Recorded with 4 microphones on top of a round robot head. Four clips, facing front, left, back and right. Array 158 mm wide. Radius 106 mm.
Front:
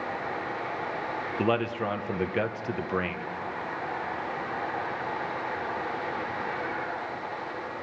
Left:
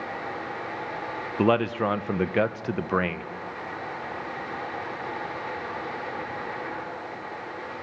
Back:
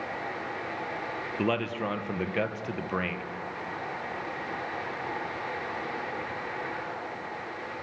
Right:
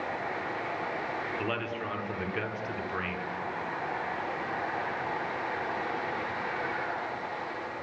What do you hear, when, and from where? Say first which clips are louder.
1.4 s a man speaking: left 11 dB, front 2 dB; 85° left, 1.1 m